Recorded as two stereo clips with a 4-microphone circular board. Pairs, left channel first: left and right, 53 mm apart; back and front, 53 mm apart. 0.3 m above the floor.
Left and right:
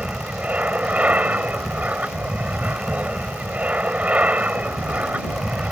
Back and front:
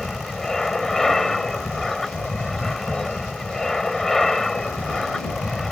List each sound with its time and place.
0.0 s an aircraft: 105° right